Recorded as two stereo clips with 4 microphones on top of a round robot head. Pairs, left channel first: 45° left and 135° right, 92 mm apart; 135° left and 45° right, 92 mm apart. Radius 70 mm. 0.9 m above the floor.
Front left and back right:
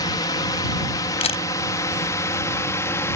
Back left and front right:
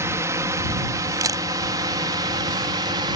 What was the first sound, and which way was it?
A drone, 10° left.